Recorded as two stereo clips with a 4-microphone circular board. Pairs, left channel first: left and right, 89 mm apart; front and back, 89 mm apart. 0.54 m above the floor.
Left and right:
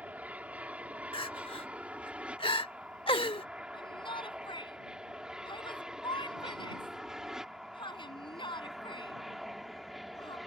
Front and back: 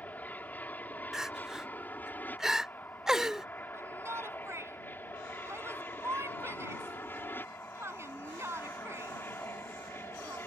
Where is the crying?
95° left.